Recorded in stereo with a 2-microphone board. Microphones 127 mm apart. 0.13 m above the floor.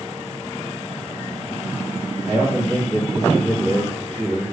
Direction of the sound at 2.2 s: 25° right (ahead or behind).